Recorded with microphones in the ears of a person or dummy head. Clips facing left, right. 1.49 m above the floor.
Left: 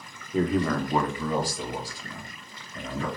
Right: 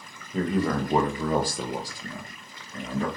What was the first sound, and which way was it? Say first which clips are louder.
A man speaking: left 1 dB; 10° left (ahead or behind).